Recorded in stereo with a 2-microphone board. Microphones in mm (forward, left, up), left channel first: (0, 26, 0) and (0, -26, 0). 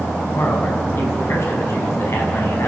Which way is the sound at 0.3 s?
55° left (ahead or behind).